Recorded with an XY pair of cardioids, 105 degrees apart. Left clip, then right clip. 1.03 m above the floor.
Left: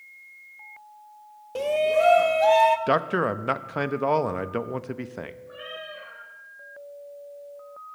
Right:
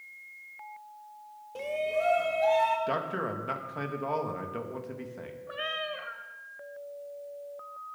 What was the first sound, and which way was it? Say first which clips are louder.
A shout: left 8 dB; 60° left.